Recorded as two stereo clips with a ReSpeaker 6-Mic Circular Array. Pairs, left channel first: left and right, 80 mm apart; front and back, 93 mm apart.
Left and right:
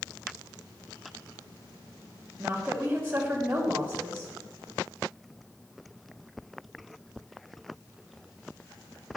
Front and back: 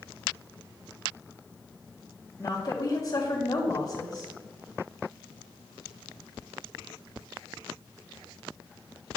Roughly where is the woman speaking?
Ahead right.